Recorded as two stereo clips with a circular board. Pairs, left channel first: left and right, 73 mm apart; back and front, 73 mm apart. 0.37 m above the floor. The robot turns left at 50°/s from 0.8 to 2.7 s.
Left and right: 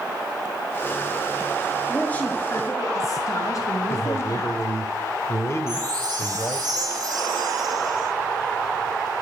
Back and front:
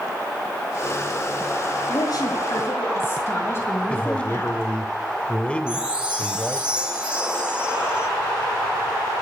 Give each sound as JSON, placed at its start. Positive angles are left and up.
{"t": 1.9, "sound": "a woman speaking", "azimuth_deg": 170, "distance_m": 6.0}
{"t": 3.9, "sound": "a man speaking", "azimuth_deg": 115, "distance_m": 1.4}
{"t": 5.7, "sound": "a chime", "azimuth_deg": -75, "distance_m": 6.0}